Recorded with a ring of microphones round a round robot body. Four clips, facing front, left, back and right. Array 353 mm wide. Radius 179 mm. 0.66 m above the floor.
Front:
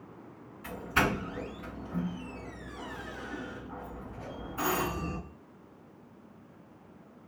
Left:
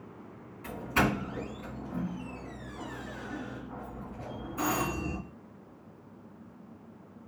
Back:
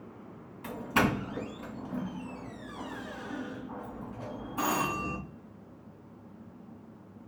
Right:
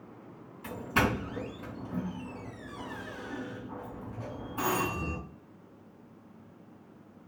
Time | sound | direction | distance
0.6 | a doorbell | 150° right | 2 m